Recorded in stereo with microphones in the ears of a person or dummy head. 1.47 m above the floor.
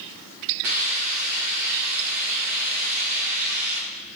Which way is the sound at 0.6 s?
45° right (ahead or behind).